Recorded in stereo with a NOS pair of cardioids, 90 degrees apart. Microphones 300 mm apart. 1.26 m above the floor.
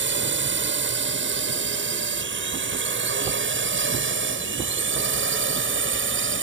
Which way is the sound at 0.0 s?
40° right.